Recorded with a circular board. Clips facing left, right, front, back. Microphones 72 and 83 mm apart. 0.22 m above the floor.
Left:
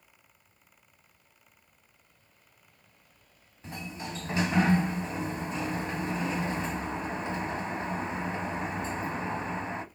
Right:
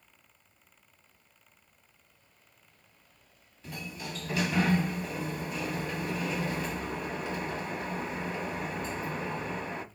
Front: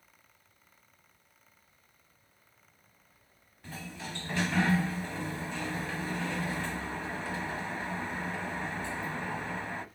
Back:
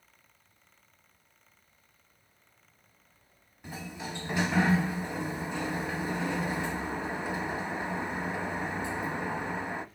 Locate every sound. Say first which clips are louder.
3.6 s a sliding door: left 2 dB, back 3 dB; 120° left, 0.6 m